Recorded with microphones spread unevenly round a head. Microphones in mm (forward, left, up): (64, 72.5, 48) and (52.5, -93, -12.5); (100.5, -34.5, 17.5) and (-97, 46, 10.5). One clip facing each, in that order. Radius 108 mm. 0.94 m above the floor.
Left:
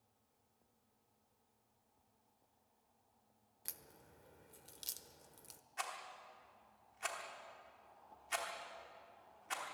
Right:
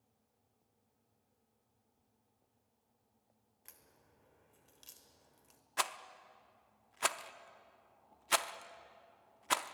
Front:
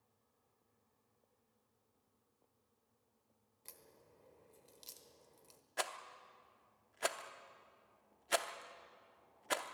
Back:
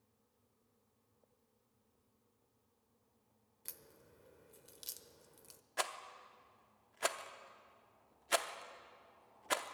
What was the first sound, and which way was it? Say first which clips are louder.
A crack: left 6 dB, back 2 dB; 85° left.